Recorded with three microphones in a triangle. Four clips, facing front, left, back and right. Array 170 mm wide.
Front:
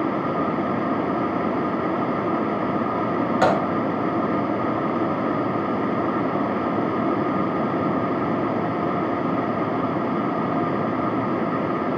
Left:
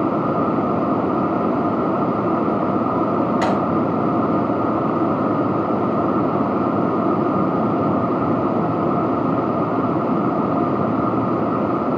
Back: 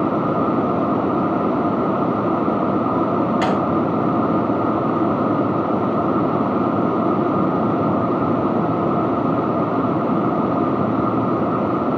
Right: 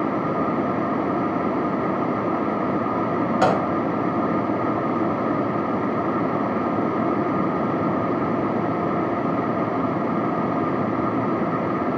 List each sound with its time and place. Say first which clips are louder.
3.4 s a gunshot: even, even; 45° right, 1.4 m